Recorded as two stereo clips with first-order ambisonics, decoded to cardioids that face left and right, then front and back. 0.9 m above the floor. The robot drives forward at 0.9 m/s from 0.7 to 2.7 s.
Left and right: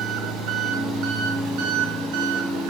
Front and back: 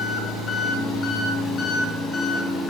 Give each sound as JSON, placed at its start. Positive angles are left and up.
{"t": 0.0, "sound": "an engine running", "azimuth_deg": -55, "distance_m": 6.0}